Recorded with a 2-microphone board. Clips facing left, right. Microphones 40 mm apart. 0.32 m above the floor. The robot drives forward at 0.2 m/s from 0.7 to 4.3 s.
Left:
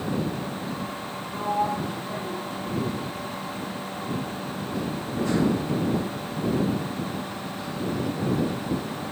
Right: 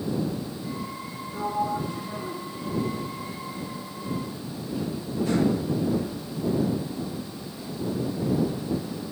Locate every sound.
1.3 s a sliding door: 75° left (ahead or behind), 3 m